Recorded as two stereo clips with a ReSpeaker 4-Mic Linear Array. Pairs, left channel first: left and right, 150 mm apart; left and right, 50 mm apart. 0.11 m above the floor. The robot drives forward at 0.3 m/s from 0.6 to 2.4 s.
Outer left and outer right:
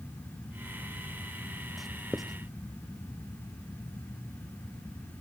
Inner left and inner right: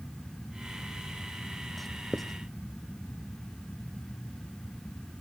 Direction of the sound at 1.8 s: Centre (ahead or behind).